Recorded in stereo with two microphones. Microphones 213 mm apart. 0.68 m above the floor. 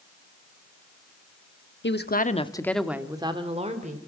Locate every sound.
1.8 s a woman speaking: 60° left (ahead or behind), 1.3 m; by 4.0 s 35° right (ahead or behind), 2.5 m